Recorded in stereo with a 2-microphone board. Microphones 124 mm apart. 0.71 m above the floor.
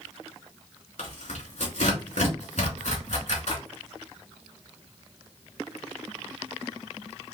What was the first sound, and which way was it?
Tearing paper, 70° left (ahead or behind).